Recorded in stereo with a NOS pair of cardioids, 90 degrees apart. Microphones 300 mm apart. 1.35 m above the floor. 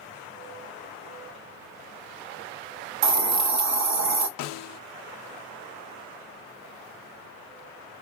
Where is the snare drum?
60° left, 0.6 m.